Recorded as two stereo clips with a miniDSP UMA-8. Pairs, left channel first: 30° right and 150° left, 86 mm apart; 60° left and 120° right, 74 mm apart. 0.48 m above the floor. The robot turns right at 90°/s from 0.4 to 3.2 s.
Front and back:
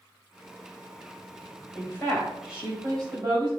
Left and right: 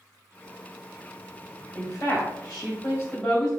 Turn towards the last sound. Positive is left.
turn(degrees=130)